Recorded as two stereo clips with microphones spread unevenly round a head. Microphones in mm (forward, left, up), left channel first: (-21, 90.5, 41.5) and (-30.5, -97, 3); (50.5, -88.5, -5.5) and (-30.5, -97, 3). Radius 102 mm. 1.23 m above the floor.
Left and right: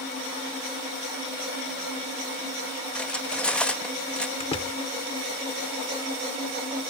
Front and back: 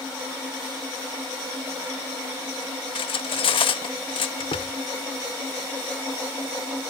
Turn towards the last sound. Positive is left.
turn(degrees=25)